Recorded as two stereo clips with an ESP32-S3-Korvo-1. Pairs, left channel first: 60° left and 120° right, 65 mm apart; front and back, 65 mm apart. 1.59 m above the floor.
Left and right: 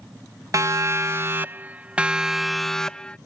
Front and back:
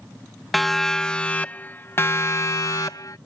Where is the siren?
90° right; by 3.2 s 15° right.